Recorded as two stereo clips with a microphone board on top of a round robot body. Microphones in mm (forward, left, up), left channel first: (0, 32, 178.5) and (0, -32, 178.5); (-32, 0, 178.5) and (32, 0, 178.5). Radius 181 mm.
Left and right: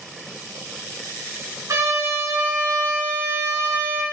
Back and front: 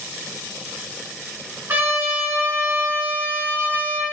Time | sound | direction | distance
1.7 | a trumpet | 50° right | 2 m